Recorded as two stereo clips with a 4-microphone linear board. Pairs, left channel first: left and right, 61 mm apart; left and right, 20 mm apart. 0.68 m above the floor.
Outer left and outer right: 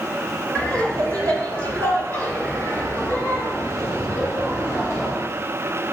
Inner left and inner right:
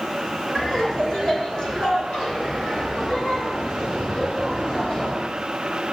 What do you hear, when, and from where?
0.6 s laughter: 30° left (ahead or behind), 1.8 m; by 5.2 s 55° left (ahead or behind), 5.5 m